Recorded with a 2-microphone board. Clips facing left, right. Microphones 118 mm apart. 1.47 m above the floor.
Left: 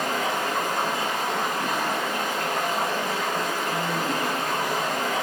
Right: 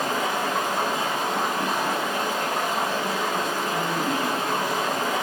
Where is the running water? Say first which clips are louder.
Right 1 dB; 30° right (ahead or behind), 1.8 m.